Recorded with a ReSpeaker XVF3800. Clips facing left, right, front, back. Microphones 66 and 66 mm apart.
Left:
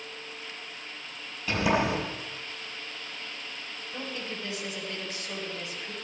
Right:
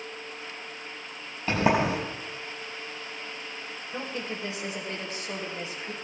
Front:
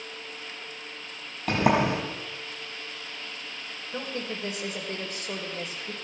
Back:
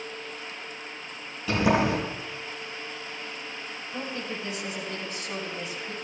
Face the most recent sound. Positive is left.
turn(degrees=-30)